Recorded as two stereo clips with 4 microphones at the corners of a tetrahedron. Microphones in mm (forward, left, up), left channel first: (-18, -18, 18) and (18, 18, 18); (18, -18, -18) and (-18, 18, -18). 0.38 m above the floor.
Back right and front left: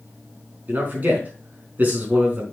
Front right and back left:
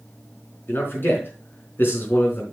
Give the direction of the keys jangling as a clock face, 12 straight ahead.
No keys jangling in this recording.